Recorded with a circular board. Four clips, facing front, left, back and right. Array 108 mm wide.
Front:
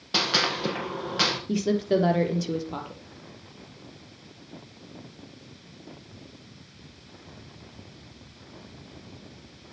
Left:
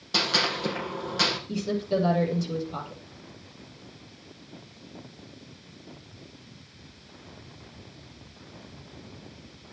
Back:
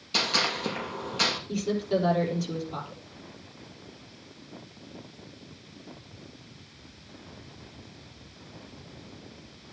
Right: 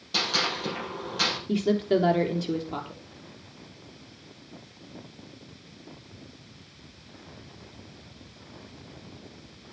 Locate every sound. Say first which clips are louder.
0.1 s a gunshot: left 2 dB, front 2 dB; 15° left, 4.5 m
1.5 s a woman speaking: right 7 dB, front 4 dB; 45° right, 3.5 m